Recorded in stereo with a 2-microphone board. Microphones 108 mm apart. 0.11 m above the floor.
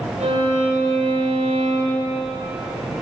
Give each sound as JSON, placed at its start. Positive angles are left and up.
{"t": 0.2, "sound": "a violin", "side_deg": -70, "distance_m": 6.0}